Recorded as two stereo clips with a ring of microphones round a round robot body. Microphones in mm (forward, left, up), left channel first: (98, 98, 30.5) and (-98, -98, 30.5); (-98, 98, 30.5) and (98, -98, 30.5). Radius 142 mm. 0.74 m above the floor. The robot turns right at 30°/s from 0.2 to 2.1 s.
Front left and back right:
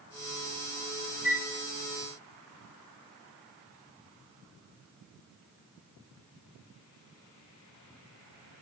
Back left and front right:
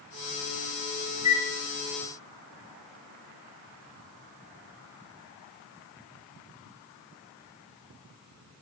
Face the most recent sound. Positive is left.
turn(degrees=60)